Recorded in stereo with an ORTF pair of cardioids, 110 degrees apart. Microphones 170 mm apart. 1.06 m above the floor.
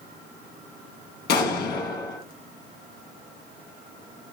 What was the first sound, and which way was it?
An explosion, 70° left.